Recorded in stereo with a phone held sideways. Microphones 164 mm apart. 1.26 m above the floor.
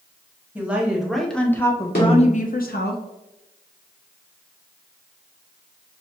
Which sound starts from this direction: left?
A snare drum, at 1.9 s.